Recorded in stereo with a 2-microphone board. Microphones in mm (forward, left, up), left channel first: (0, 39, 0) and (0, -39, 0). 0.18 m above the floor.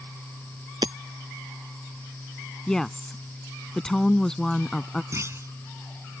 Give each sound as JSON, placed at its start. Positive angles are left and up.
{"t": 0.8, "sound": "hammering", "side_deg": -70}
{"t": 2.7, "sound": "a woman speaking", "side_deg": 10}
{"t": 5.1, "sound": "a clunk", "side_deg": -40}